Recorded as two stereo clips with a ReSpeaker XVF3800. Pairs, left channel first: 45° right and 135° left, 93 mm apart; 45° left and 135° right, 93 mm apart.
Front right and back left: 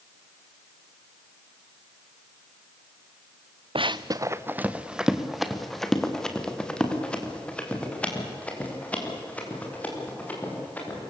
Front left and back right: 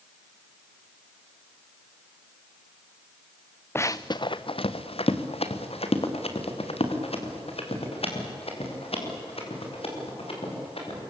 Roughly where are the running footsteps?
Left.